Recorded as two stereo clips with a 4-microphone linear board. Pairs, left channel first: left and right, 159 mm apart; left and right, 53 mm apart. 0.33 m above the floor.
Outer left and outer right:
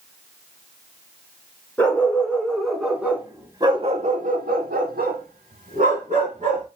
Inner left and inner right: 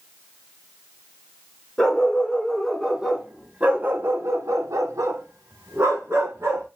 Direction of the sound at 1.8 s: 10° left (ahead or behind).